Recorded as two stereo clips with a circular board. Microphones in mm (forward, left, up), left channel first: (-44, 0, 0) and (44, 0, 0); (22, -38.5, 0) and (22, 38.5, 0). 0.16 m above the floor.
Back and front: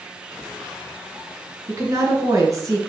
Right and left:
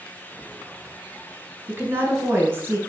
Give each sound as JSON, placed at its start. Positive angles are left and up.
{"t": 1.7, "sound": "a woman speaking", "azimuth_deg": 40, "distance_m": 1.9}